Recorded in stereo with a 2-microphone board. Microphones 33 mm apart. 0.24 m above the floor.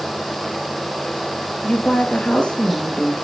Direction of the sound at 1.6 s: 30° left (ahead or behind).